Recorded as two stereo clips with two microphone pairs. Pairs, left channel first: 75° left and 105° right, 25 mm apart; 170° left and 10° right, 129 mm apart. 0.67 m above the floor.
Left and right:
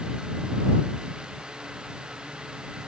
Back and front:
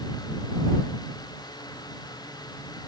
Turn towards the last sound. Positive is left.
No sound to turn to.